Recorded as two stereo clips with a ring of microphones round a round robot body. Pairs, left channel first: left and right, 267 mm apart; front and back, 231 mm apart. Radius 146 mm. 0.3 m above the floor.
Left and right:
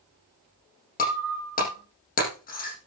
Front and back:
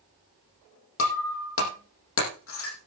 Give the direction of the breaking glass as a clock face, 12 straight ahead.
11 o'clock.